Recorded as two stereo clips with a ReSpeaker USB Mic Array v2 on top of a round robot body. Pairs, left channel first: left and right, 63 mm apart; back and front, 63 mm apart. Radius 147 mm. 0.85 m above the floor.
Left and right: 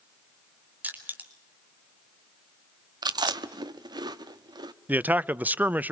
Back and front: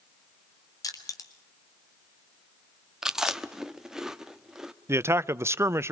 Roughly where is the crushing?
Behind right.